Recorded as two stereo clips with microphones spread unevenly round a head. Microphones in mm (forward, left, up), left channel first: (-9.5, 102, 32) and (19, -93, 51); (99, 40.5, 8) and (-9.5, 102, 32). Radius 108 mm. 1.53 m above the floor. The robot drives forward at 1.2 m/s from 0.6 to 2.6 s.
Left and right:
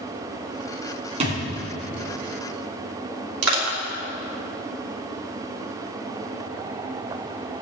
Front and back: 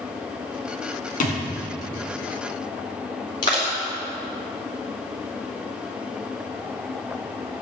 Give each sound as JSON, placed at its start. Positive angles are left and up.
{"t": 1.2, "sound": "a thud", "azimuth_deg": -30, "distance_m": 2.5}
{"t": 3.4, "sound": "crushing", "azimuth_deg": -105, "distance_m": 2.5}